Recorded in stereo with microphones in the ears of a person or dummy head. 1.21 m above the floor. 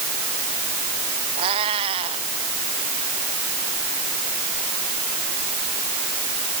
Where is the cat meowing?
30° right (ahead or behind).